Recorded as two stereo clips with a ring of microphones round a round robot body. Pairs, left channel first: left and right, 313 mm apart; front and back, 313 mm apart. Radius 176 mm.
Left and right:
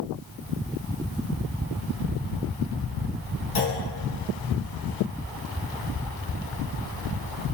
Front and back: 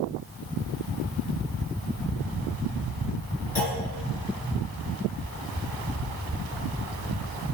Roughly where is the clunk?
Left.